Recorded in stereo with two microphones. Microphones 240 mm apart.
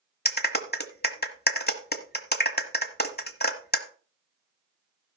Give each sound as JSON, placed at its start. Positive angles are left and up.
{"t": 0.2, "sound": "a clap", "side_deg": 40, "distance_m": 1.1}